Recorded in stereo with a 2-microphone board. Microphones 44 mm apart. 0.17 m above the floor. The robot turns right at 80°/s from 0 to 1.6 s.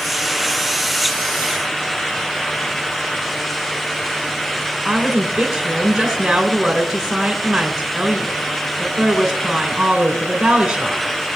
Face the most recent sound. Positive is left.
turn(degrees=-25)  # may be behind; listen again after turning